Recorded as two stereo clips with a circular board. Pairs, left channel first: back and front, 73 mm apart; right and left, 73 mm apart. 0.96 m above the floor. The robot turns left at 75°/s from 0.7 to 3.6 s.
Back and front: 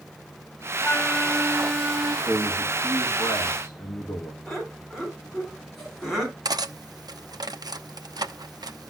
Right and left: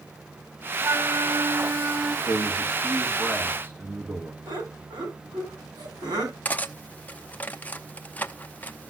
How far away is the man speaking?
About 1.8 m.